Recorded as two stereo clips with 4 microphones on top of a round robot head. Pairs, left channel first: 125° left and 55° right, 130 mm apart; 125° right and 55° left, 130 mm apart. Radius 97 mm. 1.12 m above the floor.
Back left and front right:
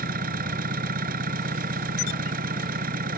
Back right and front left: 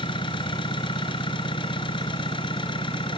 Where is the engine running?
70° right.